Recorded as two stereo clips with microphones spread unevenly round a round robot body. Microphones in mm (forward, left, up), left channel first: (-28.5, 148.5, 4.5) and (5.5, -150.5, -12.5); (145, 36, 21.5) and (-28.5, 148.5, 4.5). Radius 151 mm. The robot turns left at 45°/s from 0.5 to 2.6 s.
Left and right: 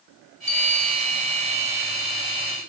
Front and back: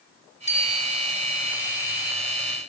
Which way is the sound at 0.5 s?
25° left.